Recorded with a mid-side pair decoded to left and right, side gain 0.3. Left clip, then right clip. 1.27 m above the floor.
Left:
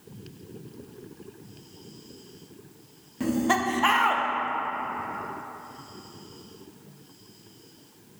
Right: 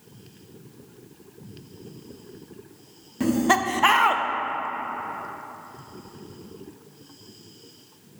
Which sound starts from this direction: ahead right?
Laughter, at 3.2 s.